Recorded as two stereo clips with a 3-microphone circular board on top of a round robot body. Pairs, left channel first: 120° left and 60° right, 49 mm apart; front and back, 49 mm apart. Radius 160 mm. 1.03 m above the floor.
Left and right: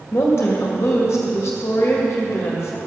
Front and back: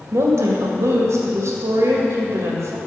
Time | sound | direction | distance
0.1 | a woman speaking | 170° left | 1.8 m